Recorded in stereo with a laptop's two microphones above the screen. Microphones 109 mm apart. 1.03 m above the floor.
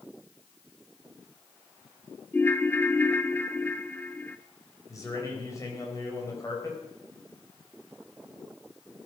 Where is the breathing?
No breathing in this recording.